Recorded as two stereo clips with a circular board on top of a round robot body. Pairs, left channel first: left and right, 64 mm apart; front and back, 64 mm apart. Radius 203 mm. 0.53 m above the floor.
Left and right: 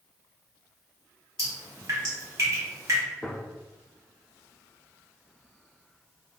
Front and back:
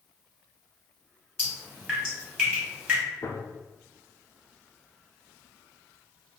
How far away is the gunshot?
About 0.7 m.